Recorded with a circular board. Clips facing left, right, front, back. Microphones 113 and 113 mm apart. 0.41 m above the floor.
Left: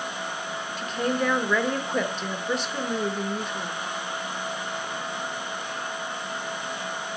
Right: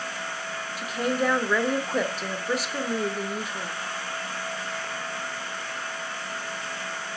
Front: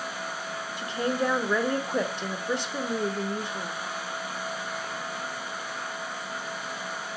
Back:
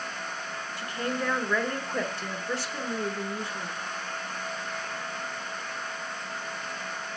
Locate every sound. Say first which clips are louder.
0.8 s a woman speaking: even, front 4 dB; 15° right, 0.8 m